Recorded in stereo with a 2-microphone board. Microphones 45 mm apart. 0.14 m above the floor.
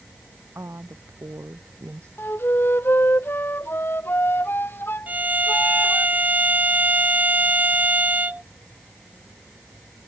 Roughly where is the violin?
Right.